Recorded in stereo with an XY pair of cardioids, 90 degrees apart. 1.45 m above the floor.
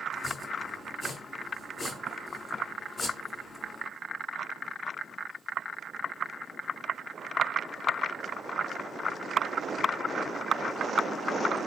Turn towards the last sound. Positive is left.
turn(degrees=35)